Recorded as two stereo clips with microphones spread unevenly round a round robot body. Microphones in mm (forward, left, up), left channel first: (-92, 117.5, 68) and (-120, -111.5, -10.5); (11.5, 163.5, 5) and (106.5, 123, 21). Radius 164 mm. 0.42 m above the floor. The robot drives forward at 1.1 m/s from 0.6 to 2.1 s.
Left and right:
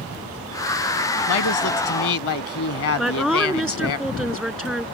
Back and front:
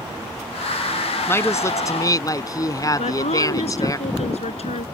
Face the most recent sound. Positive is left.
turn(degrees=175)